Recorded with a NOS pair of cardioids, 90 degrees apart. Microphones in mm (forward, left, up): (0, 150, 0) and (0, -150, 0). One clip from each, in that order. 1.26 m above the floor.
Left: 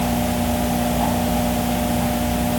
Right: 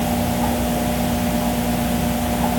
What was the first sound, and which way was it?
Only background noise.